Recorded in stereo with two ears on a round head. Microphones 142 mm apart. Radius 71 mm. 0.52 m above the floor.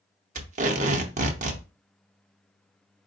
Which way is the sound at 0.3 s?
45° right (ahead or behind).